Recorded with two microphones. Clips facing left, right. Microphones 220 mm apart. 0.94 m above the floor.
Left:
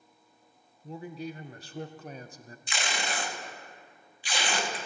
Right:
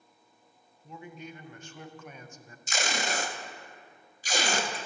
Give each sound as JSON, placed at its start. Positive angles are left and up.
{"t": 0.8, "sound": "a man speaking", "side_deg": 35, "distance_m": 0.5}
{"t": 2.7, "sound": "tape being pulled", "side_deg": -45, "distance_m": 0.8}